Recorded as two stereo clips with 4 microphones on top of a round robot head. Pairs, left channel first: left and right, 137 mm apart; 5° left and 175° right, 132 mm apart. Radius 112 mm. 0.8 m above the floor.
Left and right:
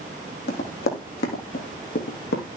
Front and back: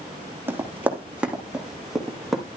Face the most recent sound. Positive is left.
turn(degrees=95)